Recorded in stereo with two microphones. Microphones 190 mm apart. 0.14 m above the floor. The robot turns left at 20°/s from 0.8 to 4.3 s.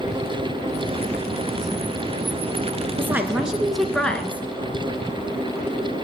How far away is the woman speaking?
About 1.7 m.